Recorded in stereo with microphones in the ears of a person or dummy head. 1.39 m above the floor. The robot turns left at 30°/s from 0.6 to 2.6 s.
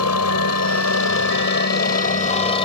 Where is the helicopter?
80° left; by 2.6 s 30° left (ahead or behind).